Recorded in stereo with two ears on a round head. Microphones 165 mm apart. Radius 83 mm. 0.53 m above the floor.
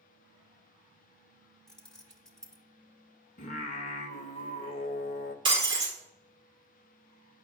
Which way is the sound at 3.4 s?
40° left (ahead or behind).